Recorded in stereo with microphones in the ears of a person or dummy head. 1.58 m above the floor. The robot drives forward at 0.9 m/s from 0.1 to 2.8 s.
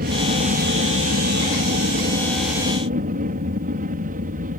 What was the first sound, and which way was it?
An aircraft, 50° right (ahead or behind).